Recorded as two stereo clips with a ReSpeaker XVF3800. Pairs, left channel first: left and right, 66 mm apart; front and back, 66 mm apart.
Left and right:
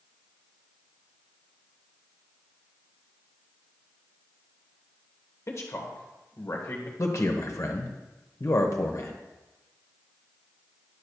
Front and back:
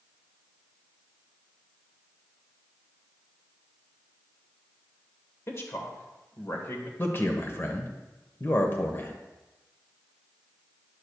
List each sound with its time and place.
5.5 s a man speaking: 45° left, 1.4 m
7.0 s a man speaking: 55° left, 1.2 m